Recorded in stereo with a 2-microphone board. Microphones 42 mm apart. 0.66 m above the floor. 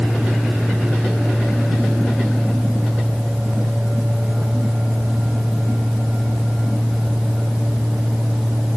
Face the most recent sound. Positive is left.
No sound to turn to.